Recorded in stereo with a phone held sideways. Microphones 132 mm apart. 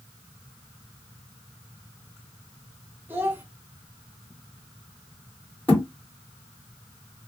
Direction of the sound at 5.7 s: 15° left (ahead or behind).